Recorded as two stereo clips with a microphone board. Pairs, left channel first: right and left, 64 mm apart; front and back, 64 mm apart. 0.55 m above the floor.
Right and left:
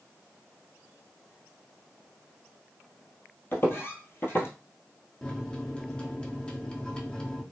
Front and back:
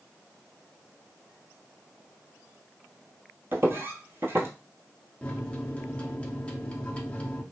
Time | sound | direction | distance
3.5 | footsteps | 135° right | 0.9 m
5.2 | a microwave | 35° right | 0.6 m